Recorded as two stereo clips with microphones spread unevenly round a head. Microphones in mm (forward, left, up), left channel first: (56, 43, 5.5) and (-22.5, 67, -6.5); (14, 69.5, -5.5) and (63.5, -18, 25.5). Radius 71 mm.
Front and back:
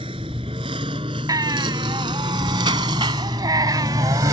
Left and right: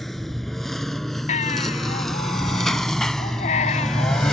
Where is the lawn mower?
145° right; by 4.3 s 140° right.